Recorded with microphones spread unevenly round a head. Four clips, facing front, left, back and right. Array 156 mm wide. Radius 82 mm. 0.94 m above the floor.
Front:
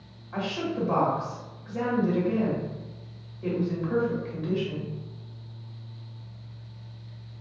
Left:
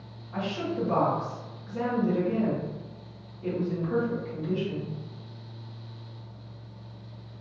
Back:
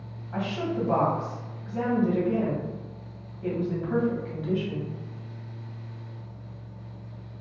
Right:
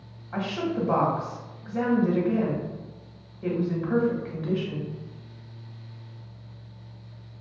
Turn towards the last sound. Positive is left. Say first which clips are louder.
# right 2 dB, back 1 dB
turn(degrees=-85)